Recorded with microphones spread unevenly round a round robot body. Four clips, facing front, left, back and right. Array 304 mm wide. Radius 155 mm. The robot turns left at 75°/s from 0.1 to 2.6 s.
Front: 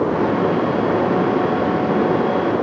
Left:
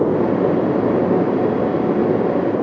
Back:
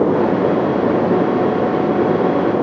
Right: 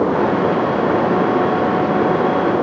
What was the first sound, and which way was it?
Only background noise.